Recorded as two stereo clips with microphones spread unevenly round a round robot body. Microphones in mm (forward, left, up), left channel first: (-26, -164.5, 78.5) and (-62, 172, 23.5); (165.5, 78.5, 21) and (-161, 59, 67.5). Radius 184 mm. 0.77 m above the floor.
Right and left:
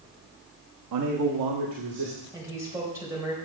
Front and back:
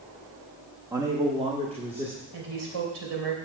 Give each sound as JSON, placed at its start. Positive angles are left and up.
{"t": 0.9, "sound": "a man speaking", "azimuth_deg": 100, "distance_m": 0.9}
{"t": 2.3, "sound": "a woman speaking", "azimuth_deg": 175, "distance_m": 3.5}